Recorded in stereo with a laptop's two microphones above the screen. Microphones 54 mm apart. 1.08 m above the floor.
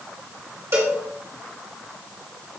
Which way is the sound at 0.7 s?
65° right (ahead or behind).